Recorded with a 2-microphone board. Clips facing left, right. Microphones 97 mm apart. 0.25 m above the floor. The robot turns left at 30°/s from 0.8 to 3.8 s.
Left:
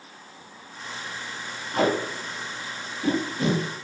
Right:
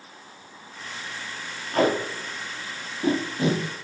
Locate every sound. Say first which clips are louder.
1.7 s tape being pulled: right 1 dB; 70° right (ahead or behind), 0.9 m; by 3.8 s 10° right (ahead or behind), 0.9 m